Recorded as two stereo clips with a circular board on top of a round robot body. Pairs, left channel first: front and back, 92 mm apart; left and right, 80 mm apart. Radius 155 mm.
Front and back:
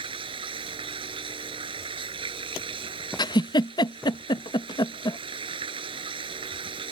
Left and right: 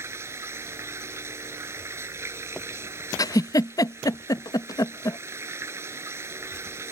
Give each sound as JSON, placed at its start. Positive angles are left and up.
{"t": 0.0, "sound": "running water", "azimuth_deg": -150}
{"t": 3.2, "sound": "a giggle", "azimuth_deg": 45}